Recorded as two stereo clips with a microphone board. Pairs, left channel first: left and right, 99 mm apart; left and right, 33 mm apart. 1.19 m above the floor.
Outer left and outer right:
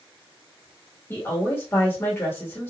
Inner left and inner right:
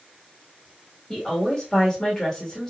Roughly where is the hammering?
I don't hear hammering.